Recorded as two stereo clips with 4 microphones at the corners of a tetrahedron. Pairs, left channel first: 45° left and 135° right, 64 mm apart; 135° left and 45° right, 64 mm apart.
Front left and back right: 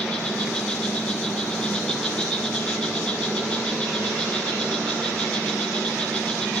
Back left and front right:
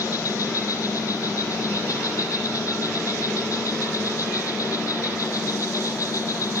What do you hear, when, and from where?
0.0 s an insect: 115° left, 3.5 m